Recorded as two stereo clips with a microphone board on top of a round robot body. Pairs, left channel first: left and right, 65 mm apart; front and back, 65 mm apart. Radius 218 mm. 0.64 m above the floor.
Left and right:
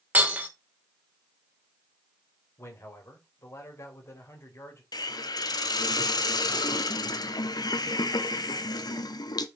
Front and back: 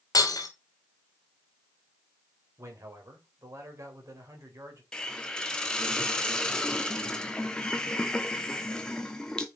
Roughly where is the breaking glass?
Ahead right.